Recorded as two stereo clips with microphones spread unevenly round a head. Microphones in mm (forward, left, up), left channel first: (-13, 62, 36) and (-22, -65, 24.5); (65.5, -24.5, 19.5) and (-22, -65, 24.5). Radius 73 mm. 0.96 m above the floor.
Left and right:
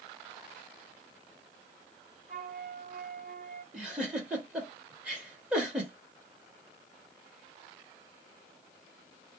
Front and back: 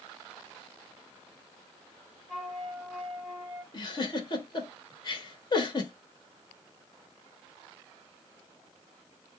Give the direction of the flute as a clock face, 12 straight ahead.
2 o'clock.